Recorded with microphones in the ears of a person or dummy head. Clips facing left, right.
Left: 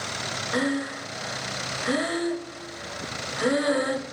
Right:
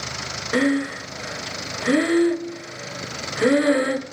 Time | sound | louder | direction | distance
0.5 | breathing | right 6 dB | 40° right (ahead or behind) | 0.7 m